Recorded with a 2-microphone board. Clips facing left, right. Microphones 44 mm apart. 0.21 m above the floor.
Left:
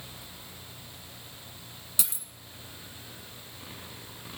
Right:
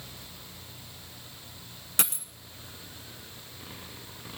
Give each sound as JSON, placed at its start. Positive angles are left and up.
{"t": 2.0, "sound": "a dropped coin", "side_deg": -55, "distance_m": 1.0}